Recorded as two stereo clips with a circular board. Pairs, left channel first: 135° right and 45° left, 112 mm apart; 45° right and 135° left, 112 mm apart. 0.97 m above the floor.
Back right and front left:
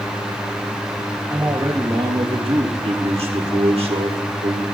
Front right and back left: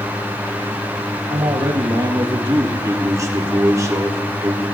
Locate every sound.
1.3 s a man speaking: 110° left, 1.2 m; by 2.7 s 80° left, 1.6 m
2.8 s a man speaking: 75° left, 1.7 m